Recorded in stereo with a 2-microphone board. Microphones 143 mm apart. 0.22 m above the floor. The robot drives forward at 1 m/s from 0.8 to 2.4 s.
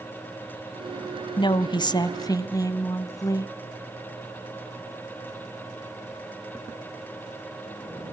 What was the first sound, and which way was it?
A woman speaking, 35° left (ahead or behind).